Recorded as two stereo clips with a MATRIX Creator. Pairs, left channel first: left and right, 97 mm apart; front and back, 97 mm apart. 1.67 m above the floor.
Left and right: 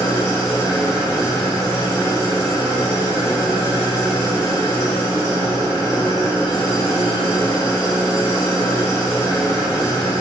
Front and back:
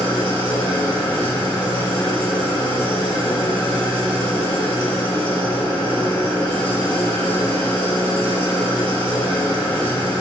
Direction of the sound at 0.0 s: 40° left.